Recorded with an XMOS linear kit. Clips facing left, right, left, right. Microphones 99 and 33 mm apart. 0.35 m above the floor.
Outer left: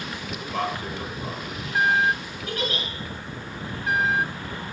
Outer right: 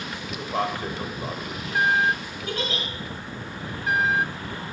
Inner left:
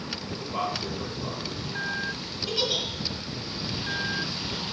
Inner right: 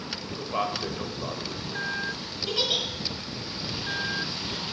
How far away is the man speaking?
About 1.2 m.